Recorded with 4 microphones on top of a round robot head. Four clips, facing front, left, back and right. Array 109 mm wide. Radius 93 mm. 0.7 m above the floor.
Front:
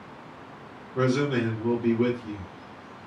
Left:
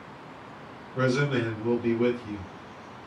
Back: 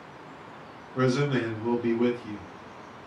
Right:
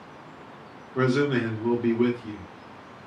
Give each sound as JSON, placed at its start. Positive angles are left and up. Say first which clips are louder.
{"t": 0.9, "sound": "a man speaking", "louder": "right 2 dB, front 1 dB", "azimuth_deg": -110, "distance_m": 1.6}